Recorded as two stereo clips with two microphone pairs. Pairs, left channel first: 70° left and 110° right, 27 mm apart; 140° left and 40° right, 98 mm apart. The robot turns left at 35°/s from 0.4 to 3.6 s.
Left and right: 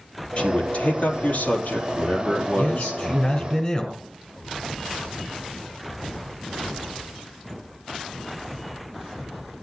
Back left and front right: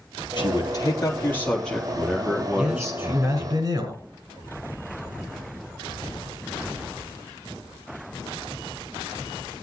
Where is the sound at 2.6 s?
45° left, 6 m; by 4.0 s 5° left, 6 m.